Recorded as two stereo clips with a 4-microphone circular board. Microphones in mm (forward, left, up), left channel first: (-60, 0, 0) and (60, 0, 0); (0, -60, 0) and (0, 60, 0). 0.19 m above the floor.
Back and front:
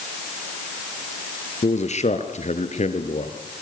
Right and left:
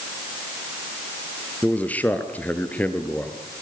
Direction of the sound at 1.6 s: 165° right.